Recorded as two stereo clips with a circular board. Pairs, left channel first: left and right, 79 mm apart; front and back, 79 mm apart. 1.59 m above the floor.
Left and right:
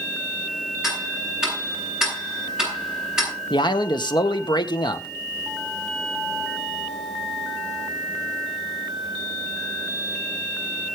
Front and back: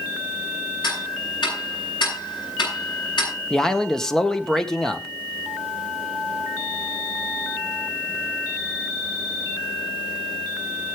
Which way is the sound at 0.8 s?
10° right.